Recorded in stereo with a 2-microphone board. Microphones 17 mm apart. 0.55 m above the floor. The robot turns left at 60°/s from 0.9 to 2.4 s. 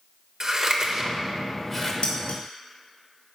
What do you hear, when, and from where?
0.4 s scissors: 35° right (ahead or behind), 1.0 m; by 1.9 s 25° left (ahead or behind), 1.0 m
2.0 s dishes clattering: 80° left, 1.5 m; by 2.4 s 65° left (ahead or behind), 1.5 m